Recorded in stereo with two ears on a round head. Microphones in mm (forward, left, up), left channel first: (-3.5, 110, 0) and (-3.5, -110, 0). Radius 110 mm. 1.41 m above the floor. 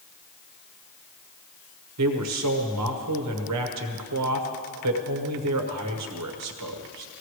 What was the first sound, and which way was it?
A man speaking, 70° right (ahead or behind).